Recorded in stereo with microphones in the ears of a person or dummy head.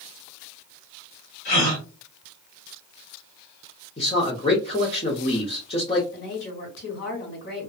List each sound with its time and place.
1.4 s a gasp: 40° left (ahead or behind), 1.9 m
4.0 s a man speaking: 30° left (ahead or behind), 0.8 m
6.1 s a woman speaking: 65° left (ahead or behind), 1.5 m